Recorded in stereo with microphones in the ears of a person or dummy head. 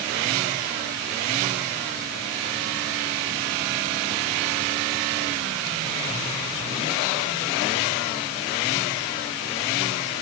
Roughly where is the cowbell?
I don't hear a cowbell.